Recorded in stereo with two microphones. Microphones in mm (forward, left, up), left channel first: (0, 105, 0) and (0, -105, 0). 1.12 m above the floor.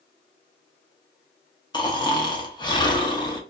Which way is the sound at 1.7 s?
20° left (ahead or behind).